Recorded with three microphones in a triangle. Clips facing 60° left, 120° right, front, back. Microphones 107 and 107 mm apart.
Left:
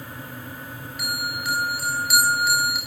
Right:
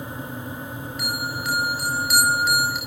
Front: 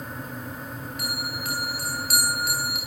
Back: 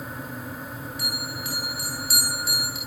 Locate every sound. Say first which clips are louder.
1.0 s a bell: even, front 3 dB; 25° right, 8 m